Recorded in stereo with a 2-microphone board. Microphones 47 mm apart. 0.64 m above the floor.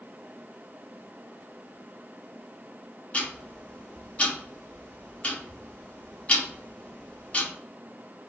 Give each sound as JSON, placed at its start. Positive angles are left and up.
{"t": 3.1, "sound": "ticking", "side_deg": 30, "distance_m": 0.7}